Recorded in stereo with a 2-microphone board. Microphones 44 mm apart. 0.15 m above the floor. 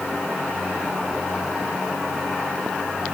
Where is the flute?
No flute in this recording.